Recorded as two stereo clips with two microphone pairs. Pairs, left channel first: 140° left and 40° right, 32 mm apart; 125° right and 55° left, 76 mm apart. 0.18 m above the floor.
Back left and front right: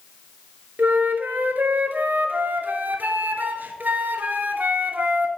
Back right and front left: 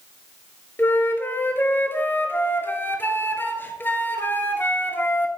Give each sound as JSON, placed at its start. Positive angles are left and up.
{"t": 0.8, "sound": "a flute", "azimuth_deg": -60, "distance_m": 0.8}